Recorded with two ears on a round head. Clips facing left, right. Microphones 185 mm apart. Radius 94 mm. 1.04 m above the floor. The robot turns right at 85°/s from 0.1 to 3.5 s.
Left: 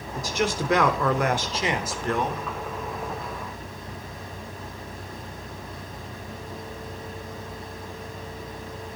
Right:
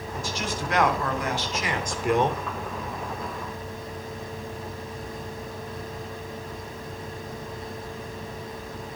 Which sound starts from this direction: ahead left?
A man speaking, at 0.1 s.